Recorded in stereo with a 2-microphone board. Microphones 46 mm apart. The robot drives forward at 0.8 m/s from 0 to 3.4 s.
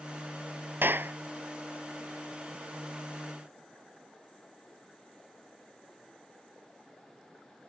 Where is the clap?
50° right (ahead or behind); by 1.1 s 55° right (ahead or behind).